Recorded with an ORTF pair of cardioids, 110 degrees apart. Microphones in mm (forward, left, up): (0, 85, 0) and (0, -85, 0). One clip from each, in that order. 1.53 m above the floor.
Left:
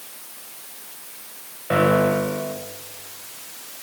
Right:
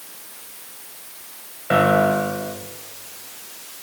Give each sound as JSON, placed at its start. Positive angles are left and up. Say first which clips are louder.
{"t": 1.7, "sound": "a piano", "louder": "right 2 dB", "azimuth_deg": 0, "distance_m": 1.3}